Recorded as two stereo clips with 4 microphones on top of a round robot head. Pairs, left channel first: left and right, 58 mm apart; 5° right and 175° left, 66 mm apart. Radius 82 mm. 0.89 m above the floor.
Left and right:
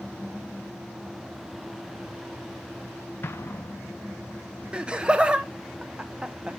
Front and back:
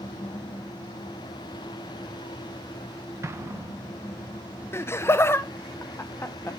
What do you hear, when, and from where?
3.2 s an explosion: 135° left, 1.2 m
4.7 s laughter: 25° right, 0.5 m